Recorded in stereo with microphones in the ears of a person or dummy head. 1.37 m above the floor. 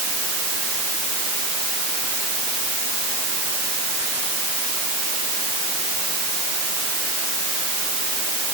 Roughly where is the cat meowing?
No cat meowing in this recording.